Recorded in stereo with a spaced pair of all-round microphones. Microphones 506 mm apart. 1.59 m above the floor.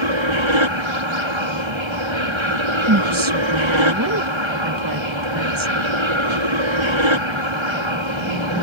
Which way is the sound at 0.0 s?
60° right (ahead or behind).